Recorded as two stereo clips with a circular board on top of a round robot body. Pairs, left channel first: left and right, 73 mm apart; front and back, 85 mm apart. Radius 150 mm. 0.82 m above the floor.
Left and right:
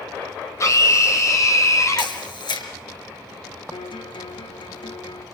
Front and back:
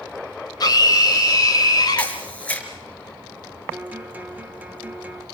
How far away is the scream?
About 4 m.